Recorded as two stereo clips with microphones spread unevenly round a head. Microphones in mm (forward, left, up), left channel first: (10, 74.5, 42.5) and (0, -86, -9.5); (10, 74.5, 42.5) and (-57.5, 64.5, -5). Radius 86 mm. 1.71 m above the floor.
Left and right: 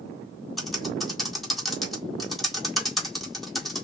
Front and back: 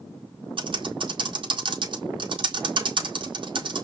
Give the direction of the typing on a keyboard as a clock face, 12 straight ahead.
6 o'clock.